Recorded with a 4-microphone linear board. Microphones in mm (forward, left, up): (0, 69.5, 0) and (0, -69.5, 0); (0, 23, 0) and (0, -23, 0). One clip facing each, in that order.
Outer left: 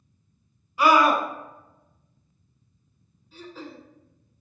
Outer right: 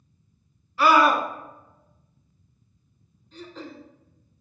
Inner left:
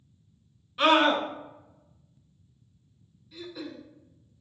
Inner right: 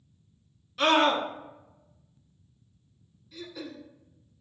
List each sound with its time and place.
0.8 s a scream: 15° left (ahead or behind), 1.1 m
3.3 s throat clearing: 5° left (ahead or behind), 1.1 m